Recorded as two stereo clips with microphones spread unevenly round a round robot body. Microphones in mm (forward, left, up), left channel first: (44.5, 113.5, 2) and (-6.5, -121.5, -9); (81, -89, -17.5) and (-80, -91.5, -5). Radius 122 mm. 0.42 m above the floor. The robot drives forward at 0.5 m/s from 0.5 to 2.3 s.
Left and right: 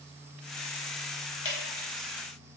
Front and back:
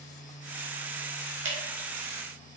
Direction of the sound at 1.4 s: 155° left.